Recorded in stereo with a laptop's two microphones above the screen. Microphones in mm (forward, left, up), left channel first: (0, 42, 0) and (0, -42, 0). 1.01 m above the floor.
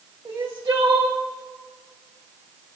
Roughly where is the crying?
Right.